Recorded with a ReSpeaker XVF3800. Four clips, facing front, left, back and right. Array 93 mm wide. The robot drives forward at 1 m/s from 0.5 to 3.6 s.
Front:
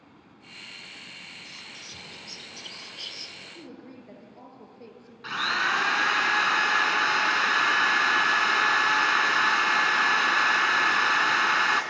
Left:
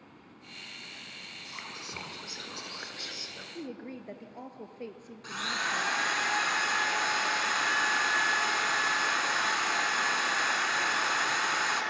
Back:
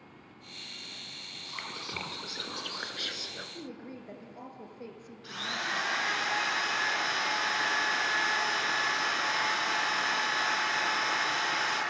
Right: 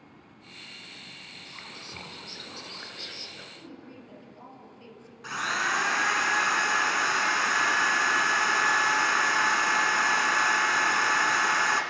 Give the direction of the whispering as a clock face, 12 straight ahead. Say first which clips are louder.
Left 2 dB, back 4 dB; 7 o'clock.